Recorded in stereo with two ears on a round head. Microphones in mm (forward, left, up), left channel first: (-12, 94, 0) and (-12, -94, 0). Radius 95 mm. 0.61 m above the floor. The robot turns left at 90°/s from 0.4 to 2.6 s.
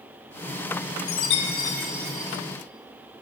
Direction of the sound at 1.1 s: 70° left.